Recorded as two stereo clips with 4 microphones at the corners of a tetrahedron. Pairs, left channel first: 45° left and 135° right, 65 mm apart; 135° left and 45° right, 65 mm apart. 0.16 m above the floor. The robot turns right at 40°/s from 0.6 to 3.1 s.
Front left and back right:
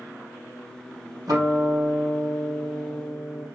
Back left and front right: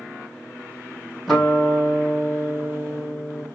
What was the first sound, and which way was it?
A guitar, 140° right.